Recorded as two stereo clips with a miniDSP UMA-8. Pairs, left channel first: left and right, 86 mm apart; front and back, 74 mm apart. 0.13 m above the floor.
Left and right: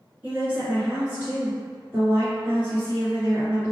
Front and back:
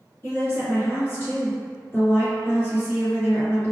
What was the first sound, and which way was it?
A woman speaking, 30° right.